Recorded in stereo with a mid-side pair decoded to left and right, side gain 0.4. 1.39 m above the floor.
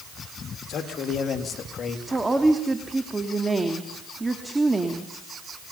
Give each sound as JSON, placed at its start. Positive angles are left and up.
{"t": 0.7, "sound": "a man speaking", "azimuth_deg": 65, "distance_m": 2.5}
{"t": 2.1, "sound": "a woman speaking", "azimuth_deg": -20, "distance_m": 2.5}